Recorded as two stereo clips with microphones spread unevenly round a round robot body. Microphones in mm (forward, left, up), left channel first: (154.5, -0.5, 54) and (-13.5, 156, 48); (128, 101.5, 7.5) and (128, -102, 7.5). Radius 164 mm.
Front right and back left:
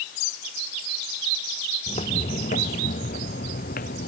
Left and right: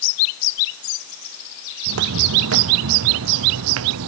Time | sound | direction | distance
1.9 | footsteps | 115° right | ?